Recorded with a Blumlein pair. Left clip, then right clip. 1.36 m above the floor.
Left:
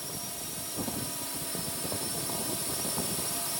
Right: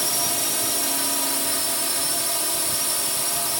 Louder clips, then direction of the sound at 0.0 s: Right 15 dB; 55° right.